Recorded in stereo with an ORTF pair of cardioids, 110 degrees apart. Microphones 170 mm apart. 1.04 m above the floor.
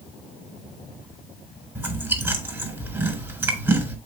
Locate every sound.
1.8 s chewing: 15° right, 4 m